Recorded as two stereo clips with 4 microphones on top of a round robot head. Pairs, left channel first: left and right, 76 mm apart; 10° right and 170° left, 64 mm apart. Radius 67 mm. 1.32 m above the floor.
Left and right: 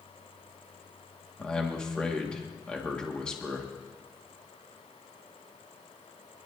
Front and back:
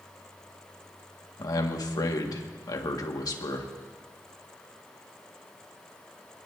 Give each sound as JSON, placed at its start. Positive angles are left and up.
{"t": 1.4, "sound": "a man speaking", "azimuth_deg": 10, "distance_m": 1.8}